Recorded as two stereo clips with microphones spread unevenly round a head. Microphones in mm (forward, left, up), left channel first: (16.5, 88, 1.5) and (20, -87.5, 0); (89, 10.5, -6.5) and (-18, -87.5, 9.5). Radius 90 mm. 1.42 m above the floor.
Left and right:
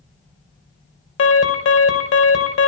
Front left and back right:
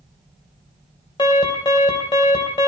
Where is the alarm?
105° left, 2.5 m.